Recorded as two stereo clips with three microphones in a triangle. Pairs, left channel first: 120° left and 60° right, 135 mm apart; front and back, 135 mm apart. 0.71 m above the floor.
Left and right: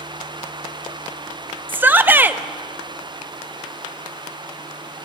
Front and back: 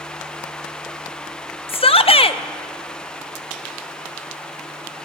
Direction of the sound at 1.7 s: 10° left.